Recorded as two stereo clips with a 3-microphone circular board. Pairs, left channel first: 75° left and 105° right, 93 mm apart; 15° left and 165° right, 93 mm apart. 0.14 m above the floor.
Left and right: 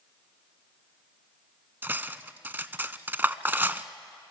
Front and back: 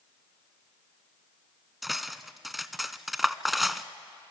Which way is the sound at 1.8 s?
80° right.